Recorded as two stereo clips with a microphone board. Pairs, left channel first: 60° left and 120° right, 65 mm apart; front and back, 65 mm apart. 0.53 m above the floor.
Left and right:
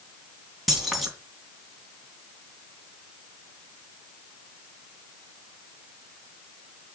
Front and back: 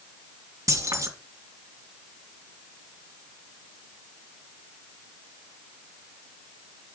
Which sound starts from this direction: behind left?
Keys jangling, at 0.7 s.